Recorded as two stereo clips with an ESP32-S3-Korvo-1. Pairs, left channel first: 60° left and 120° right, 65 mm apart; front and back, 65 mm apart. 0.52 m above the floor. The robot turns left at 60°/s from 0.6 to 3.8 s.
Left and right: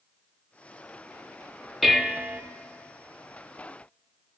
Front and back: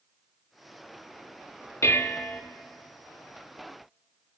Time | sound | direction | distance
1.8 | dishes clattering | 30° right | 0.7 m